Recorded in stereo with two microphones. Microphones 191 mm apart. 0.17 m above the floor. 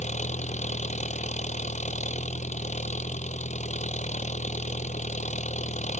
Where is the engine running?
40° left (ahead or behind).